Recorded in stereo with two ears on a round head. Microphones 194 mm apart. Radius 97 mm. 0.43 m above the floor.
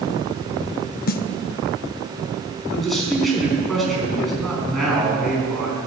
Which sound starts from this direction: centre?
A man speaking, at 2.7 s.